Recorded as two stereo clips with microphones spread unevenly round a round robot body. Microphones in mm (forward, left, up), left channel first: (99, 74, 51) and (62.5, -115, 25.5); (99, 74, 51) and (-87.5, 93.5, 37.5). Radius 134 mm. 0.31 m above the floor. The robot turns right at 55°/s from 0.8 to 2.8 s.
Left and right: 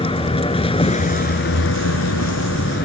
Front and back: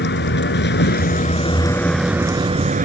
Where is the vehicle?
20° left; by 2.9 s 130° left.